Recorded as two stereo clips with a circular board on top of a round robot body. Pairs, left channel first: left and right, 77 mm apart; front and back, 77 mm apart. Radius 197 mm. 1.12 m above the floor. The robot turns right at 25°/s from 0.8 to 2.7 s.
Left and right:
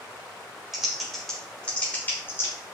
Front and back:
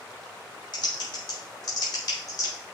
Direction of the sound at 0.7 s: 5° right.